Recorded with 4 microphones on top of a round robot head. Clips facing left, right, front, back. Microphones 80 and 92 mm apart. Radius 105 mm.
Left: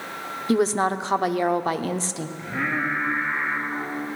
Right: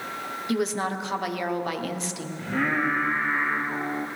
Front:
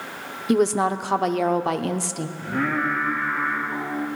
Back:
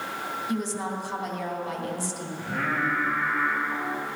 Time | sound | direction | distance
0.5 | a woman speaking | 30° left | 0.7 m
2.4 | singing | 90° right | 2.5 m